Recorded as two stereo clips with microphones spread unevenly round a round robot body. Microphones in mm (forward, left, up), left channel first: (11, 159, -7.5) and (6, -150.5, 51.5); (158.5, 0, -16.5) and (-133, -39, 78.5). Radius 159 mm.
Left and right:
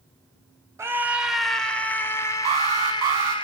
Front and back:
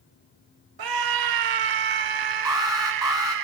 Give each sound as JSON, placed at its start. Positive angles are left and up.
{"t": 0.8, "sound": "a scream", "azimuth_deg": -175, "distance_m": 1.9}
{"t": 2.5, "sound": "an alarm", "azimuth_deg": -90, "distance_m": 6.0}